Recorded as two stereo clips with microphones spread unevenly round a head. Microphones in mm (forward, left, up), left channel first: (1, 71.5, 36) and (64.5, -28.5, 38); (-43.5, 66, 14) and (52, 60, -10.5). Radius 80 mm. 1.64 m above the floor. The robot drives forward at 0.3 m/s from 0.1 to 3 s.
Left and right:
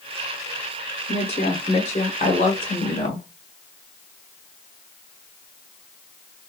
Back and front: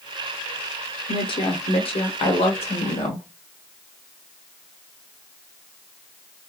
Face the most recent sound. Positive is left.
turn(degrees=175)